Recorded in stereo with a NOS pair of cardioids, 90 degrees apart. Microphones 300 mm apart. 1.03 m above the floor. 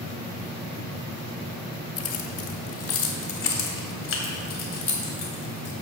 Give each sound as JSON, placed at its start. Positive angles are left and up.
{"t": 2.0, "sound": "keys jangling", "azimuth_deg": 55, "distance_m": 1.3}